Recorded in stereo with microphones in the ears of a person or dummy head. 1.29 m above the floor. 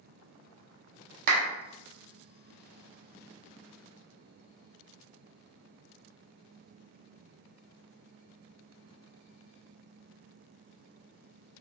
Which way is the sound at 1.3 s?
55° right (ahead or behind).